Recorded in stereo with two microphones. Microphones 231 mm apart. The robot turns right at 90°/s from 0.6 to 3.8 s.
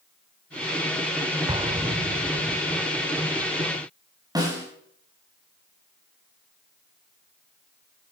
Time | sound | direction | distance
1.5 | an explosion | 20° right (ahead or behind) | 0.9 m
4.3 | a snare drum | 15° right (ahead or behind) | 7 m